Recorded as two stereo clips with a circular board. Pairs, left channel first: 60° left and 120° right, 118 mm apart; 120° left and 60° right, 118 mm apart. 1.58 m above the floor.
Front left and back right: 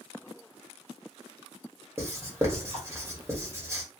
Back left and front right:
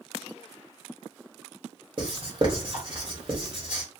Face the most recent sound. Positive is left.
turn(degrees=-60)